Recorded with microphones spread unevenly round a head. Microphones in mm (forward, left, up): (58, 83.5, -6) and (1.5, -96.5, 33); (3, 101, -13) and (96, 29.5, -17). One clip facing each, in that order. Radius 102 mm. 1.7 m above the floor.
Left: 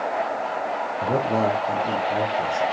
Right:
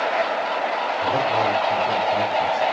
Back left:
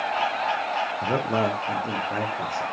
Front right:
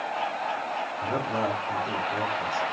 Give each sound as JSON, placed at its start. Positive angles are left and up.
{"t": 1.0, "sound": "a man speaking", "azimuth_deg": 90, "distance_m": 0.8}